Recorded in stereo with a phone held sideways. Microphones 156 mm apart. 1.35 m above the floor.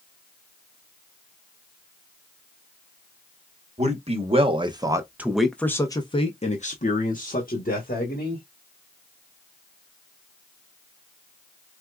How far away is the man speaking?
About 1.1 m.